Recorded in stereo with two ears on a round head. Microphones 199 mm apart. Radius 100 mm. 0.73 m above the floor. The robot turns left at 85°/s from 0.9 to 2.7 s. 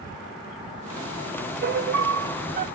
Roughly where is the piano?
Ahead right.